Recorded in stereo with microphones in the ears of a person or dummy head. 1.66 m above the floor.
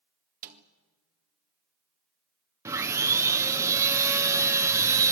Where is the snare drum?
45° right (ahead or behind), 1.7 m.